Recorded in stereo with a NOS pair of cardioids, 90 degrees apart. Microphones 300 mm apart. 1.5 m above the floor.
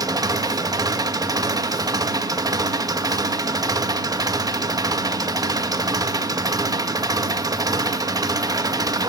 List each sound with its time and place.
0.0 s an engine running: 15° right, 1.7 m